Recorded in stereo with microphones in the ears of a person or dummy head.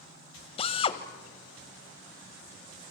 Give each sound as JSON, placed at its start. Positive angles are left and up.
{"t": 0.6, "sound": "a drill", "side_deg": 30, "distance_m": 1.2}